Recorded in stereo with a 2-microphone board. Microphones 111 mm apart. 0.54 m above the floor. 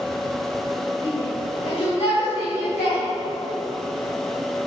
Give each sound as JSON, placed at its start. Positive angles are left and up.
{"t": 1.0, "sound": "a shout", "side_deg": 40, "distance_m": 2.0}